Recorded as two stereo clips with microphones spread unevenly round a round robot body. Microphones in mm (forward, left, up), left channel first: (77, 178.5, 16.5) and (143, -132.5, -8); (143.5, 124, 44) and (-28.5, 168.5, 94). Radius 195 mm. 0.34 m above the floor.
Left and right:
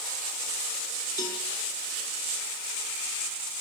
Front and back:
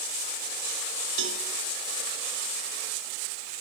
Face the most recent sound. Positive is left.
turn(degrees=-175)